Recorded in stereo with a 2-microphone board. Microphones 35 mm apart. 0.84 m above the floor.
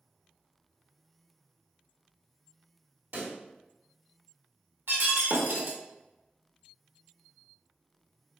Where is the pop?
85° right, 2.5 m.